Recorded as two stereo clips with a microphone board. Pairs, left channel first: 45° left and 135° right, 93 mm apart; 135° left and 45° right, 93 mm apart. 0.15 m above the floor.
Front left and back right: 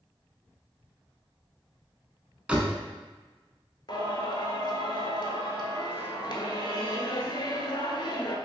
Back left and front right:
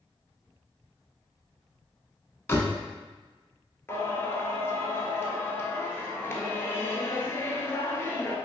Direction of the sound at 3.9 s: 75° left.